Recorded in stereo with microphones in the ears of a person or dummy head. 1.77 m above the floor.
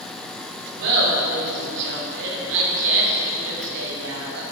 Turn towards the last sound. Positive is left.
turn(degrees=-75)  # may be behind; listen again after turning